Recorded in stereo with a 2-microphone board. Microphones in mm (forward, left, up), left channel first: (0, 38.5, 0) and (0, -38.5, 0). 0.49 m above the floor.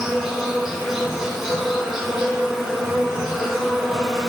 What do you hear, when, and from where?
0.0 s an insect: 5° right (ahead or behind), 1.7 m